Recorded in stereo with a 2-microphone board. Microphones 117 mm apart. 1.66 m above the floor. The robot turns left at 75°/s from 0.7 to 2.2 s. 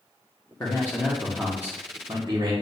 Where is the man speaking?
45° left, 0.7 m; by 2.5 s 70° right, 0.7 m.